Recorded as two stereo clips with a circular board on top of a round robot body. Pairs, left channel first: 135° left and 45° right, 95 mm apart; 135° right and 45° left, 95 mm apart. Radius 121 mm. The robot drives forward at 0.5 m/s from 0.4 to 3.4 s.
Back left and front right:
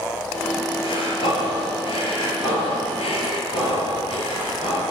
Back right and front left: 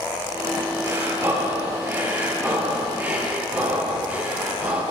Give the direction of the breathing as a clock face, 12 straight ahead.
8 o'clock.